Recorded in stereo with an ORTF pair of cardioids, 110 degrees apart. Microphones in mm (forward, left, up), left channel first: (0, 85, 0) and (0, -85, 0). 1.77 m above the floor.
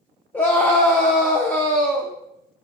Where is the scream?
10° left, 0.6 m.